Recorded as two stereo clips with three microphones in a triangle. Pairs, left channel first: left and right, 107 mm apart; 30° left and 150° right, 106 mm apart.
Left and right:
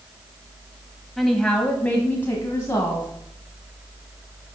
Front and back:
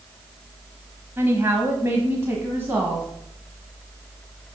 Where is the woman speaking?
Straight behind, 1.1 m; by 3.1 s 145° left, 1.6 m.